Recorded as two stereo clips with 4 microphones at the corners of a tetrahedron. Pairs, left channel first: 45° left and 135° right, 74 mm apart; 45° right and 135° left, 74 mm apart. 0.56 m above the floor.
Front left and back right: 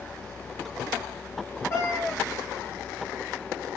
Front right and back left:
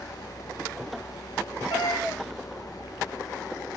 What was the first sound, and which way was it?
A cat meowing, 10° right.